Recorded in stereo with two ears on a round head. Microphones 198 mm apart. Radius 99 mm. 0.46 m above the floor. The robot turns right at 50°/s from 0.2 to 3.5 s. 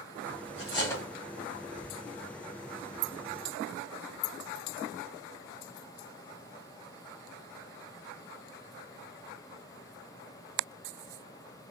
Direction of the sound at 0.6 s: 30° left (ahead or behind).